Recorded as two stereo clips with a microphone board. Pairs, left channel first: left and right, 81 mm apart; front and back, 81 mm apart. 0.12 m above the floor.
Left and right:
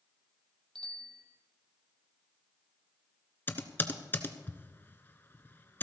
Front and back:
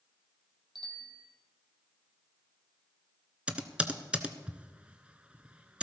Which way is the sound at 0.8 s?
170° left.